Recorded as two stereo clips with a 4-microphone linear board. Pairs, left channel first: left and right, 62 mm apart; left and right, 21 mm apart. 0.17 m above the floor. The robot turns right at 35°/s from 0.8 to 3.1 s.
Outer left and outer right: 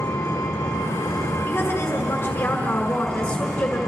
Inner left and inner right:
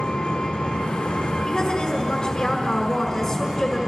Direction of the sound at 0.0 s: 95° left.